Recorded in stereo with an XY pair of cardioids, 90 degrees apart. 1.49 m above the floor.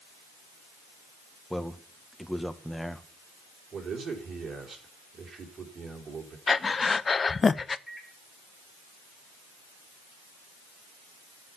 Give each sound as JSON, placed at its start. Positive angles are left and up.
{"t": 1.5, "sound": "a man speaking", "azimuth_deg": 0, "distance_m": 1.6}
{"t": 3.7, "sound": "a man speaking", "azimuth_deg": -55, "distance_m": 4.0}
{"t": 6.5, "sound": "breathing", "azimuth_deg": 35, "distance_m": 0.6}
{"t": 7.9, "sound": "a microwave", "azimuth_deg": 5, "distance_m": 2.0}